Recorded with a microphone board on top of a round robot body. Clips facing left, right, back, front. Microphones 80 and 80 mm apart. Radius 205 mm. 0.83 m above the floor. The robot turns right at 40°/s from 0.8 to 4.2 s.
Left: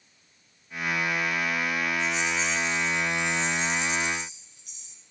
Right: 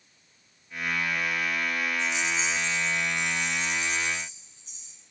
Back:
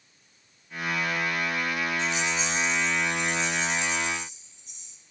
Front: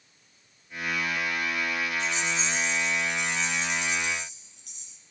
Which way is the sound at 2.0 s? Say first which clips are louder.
Left 1 dB, back 1 dB; 115° right.